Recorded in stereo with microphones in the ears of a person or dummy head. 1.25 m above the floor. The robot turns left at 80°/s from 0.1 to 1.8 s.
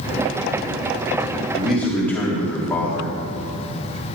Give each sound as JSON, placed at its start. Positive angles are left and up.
{"t": 1.5, "sound": "a man speaking", "side_deg": -15, "distance_m": 2.5}